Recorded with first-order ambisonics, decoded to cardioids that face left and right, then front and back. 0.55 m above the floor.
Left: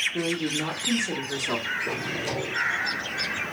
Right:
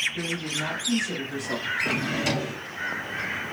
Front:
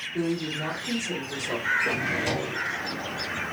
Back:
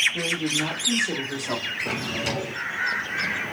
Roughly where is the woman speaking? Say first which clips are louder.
Left 2 dB, back 4 dB; left.